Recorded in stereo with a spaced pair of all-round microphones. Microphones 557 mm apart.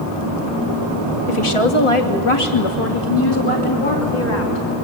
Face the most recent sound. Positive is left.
turn(degrees=60)  # may be behind; listen again after turning